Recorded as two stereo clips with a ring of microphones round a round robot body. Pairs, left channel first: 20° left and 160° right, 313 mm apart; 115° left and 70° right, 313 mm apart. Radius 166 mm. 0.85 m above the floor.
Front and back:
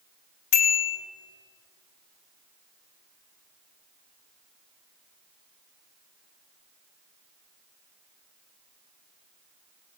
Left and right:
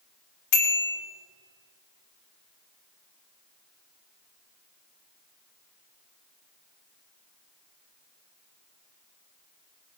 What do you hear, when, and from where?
0.5 s a bicycle bell: 75° left, 2.5 m